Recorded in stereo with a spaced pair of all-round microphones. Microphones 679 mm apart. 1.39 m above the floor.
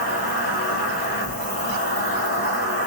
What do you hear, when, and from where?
0.0 s an insect: 30° right (ahead or behind), 1.5 m